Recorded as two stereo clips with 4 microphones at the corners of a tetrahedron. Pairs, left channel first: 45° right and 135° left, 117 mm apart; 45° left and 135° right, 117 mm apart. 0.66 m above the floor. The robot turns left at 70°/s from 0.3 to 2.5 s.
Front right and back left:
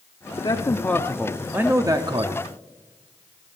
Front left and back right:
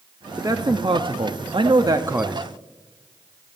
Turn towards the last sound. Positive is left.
turn(degrees=135)